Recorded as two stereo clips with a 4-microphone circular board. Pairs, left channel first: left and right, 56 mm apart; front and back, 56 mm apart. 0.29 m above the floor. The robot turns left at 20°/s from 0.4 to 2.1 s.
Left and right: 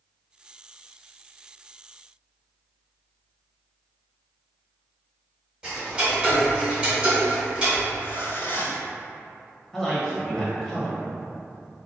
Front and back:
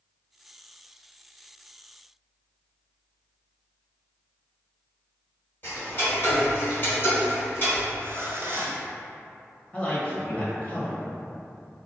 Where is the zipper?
140° left, 0.8 m.